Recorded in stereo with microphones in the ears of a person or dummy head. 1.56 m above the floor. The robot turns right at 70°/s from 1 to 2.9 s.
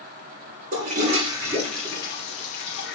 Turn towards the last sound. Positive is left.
turn(degrees=85)